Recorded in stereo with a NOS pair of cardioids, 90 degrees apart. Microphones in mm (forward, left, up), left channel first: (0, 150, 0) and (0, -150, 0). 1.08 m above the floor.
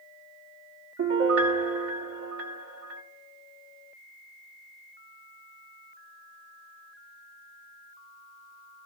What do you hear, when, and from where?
1.0 s a piano: 55° right, 1.0 m